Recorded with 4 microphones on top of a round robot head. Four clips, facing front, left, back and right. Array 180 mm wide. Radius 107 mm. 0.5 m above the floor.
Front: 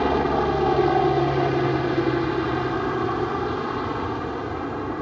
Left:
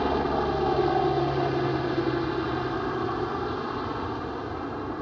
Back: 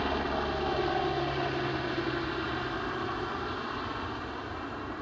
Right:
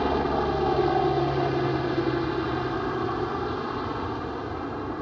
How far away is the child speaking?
No child speaking in this recording.